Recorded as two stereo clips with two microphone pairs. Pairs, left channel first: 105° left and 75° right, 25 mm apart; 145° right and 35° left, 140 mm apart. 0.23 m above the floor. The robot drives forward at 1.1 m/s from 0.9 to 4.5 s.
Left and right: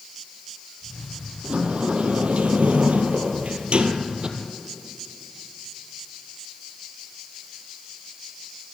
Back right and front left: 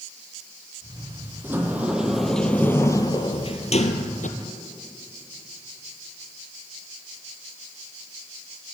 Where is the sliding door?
40° right, 2.5 m; by 4.3 s 130° right, 2.0 m.